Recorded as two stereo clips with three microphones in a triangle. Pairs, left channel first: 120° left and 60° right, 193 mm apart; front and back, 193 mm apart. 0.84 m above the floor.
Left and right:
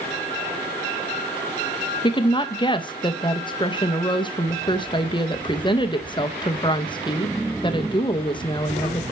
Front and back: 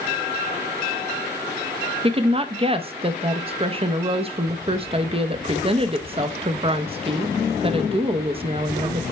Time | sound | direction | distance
2.0 | a woman speaking | 160° left | 0.5 m